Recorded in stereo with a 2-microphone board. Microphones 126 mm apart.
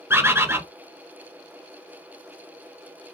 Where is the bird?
20° right (ahead or behind), 0.9 m.